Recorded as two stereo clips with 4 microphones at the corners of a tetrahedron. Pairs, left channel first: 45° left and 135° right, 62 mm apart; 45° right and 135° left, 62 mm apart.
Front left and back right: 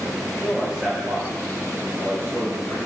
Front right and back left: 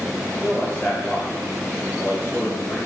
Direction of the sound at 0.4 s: 15° left.